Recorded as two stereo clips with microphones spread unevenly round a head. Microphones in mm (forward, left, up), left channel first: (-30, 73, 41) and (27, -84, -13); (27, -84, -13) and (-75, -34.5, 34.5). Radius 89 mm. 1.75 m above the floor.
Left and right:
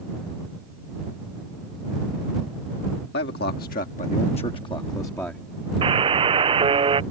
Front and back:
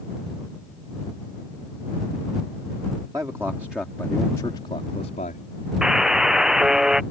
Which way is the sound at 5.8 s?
145° right.